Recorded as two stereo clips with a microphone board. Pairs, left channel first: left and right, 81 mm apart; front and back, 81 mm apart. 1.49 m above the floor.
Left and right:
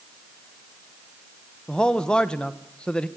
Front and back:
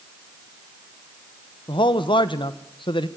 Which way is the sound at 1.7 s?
10° left.